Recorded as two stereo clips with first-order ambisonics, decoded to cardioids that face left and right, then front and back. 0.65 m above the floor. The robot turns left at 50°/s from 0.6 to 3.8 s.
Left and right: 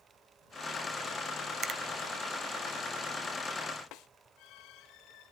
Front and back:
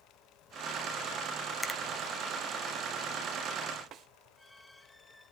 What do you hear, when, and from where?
1.6 s a finger snap: 90° right, 0.6 m; by 1.8 s 100° right, 0.6 m
3.9 s a snare drum: 130° left, 0.8 m